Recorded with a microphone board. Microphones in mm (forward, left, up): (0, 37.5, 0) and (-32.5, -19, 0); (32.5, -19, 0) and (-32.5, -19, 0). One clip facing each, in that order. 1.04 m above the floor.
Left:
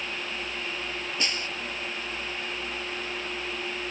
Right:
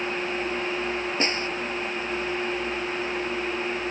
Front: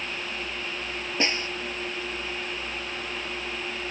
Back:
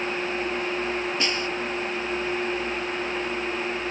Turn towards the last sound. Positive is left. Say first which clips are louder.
# right 4 dB, back 1 dB
turn(degrees=-65)